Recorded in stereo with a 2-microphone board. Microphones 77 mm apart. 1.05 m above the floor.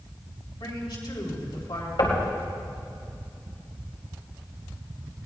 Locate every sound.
0.6 s a man speaking: 75° left (ahead or behind), 4 m
2.0 s knocking: 80° left, 3 m